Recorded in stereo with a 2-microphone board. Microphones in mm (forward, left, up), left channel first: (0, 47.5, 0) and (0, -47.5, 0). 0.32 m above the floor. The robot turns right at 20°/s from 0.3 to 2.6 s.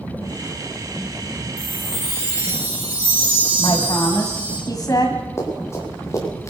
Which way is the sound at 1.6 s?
5° right (ahead or behind).